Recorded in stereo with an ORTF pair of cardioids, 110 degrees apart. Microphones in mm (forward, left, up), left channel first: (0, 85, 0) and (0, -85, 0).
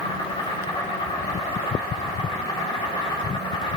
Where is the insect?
30° left, 5 m.